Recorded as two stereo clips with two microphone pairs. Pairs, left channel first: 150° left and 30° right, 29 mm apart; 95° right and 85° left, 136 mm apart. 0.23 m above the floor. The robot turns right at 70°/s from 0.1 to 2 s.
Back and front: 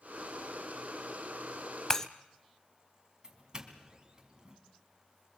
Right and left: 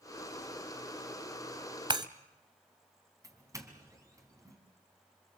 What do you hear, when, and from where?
1.9 s breaking glass: 100° left, 0.8 m; by 2.1 s 105° left, 0.8 m
3.2 s a doorbell: 30° left, 2.5 m